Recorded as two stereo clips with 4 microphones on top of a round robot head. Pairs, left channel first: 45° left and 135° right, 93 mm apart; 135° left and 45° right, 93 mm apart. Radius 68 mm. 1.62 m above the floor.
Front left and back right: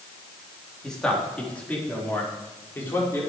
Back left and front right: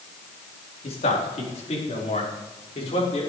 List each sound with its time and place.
0.8 s a man speaking: 130° left, 4 m; by 3.2 s 115° left, 6 m